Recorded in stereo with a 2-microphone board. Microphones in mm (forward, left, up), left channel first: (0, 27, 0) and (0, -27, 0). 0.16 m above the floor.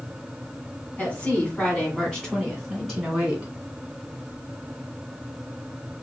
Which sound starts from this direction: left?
A woman speaking, at 1.0 s.